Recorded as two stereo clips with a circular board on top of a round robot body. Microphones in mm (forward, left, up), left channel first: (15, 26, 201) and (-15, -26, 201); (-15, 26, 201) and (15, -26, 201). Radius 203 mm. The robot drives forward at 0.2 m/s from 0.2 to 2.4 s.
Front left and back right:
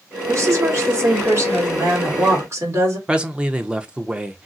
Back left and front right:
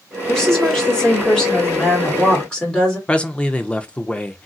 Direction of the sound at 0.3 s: 160° right.